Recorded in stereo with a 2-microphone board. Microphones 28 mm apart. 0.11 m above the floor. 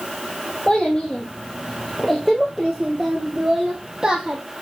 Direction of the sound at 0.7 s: 30° left (ahead or behind).